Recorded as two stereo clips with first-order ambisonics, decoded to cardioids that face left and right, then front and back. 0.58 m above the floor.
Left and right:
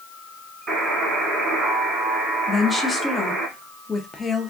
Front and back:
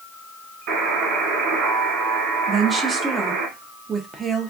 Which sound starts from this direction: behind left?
A woman speaking, at 2.5 s.